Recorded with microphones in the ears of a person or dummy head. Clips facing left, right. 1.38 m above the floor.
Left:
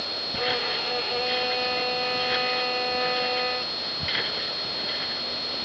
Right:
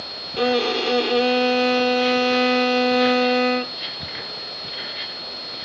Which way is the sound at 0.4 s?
80° right.